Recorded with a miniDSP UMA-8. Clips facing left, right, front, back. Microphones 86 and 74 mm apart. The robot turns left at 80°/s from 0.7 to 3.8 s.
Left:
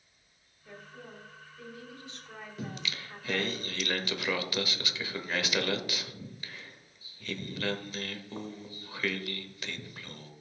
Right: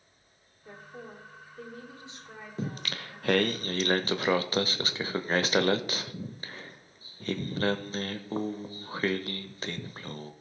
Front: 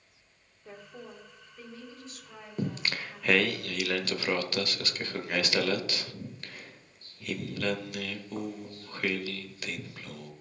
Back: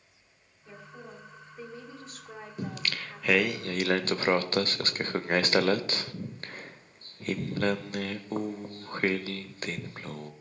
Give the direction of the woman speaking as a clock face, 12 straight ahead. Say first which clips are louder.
Right 3 dB, even; 1 o'clock.